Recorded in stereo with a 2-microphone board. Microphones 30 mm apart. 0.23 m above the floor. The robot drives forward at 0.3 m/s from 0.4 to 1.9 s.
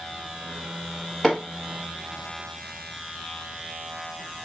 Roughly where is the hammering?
Centre.